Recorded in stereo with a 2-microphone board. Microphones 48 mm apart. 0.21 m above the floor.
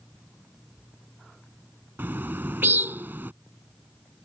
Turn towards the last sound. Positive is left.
turn(degrees=-45)  # may be behind; listen again after turning